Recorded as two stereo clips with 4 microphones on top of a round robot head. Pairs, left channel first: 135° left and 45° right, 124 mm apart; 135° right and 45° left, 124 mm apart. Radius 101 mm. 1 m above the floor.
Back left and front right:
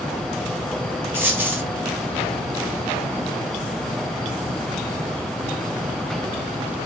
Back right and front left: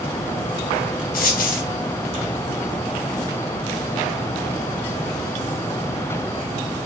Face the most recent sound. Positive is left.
turn(degrees=-120)